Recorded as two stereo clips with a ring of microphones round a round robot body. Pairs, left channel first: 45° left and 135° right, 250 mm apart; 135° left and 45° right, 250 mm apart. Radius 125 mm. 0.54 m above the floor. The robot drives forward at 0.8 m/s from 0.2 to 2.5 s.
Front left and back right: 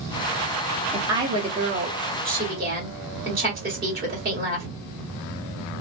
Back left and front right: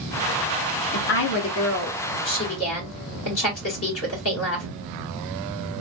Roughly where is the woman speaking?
Behind left.